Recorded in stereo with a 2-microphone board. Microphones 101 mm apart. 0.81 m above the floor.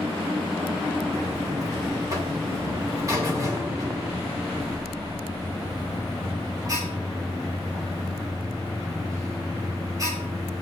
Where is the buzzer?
35° right (ahead or behind), 2.5 m.